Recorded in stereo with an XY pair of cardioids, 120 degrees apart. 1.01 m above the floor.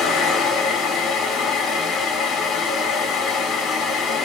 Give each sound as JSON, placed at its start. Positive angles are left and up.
{"t": 0.0, "sound": "a fan", "azimuth_deg": 65, "distance_m": 2.0}